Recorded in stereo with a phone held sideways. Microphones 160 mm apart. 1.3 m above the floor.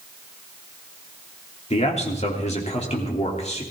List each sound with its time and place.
1.7 s a man speaking: 45° left (ahead or behind), 3 m